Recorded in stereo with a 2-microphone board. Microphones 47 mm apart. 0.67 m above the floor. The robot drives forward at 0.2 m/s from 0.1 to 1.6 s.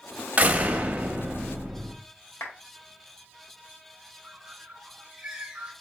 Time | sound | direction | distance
0.4 | a door slam | 30° right (ahead or behind) | 0.7 m
2.4 | a clap | 65° left (ahead or behind) | 1.7 m
4.2 | a bird | 15° right (ahead or behind) | 1.2 m